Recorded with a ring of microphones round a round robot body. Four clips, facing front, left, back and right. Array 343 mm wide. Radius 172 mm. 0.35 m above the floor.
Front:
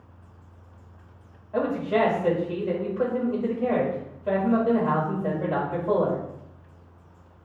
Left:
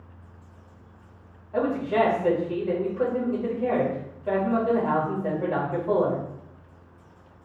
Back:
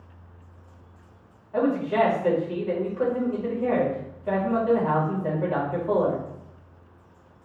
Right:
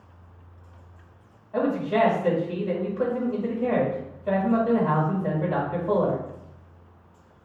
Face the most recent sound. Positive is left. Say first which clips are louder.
# even, back 1 dB
turn(degrees=15)